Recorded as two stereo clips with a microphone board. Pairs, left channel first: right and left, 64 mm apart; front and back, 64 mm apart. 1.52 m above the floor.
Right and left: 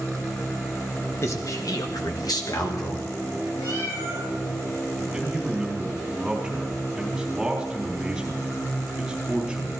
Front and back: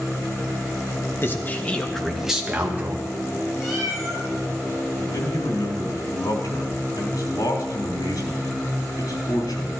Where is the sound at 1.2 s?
50° right, 1.6 m; by 3.1 s 120° right, 2.0 m.